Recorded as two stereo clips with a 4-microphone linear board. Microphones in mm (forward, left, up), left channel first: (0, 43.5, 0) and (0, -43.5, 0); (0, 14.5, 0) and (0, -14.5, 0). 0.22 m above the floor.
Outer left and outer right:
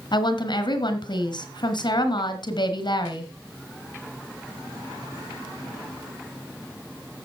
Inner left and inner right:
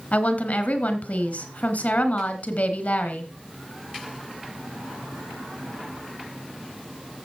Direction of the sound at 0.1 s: 60° left (ahead or behind).